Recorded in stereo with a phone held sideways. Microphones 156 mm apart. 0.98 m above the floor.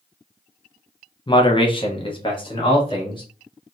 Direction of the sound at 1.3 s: 30° left (ahead or behind).